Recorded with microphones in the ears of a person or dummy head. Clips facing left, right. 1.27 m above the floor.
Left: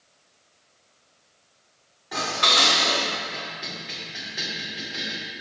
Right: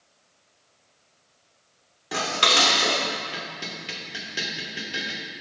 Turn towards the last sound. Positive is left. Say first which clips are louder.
# right 2 dB
turn(degrees=-50)  # may be behind; listen again after turning